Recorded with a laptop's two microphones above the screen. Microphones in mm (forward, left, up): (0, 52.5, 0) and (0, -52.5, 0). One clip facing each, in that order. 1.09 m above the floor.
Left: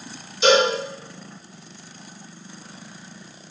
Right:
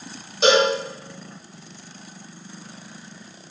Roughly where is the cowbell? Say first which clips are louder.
Even; right.